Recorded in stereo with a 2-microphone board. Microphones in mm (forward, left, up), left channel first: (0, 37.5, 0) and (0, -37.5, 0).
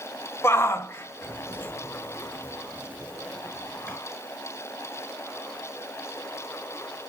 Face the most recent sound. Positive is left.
turn(degrees=15)  # may be behind; listen again after turning